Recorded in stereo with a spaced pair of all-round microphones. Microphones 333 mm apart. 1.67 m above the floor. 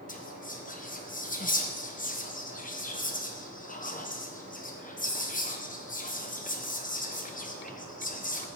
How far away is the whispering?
About 0.6 m.